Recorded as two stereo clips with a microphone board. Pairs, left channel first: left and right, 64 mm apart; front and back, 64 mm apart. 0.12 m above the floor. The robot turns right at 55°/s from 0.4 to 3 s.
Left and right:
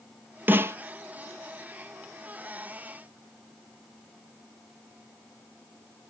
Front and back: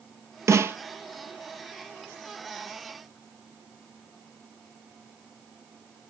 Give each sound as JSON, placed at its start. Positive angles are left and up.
{"t": 0.5, "sound": "a snare drum", "azimuth_deg": -145, "distance_m": 0.6}